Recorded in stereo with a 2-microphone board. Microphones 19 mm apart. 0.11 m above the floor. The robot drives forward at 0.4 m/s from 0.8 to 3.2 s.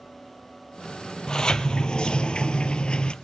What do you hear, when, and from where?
1.3 s a sliding door: 40° left (ahead or behind), 0.8 m; by 3.1 s 55° left (ahead or behind), 0.6 m